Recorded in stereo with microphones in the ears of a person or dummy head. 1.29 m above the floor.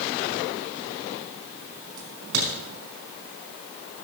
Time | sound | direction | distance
2.0 | a crack | 75° right (ahead or behind) | 5 m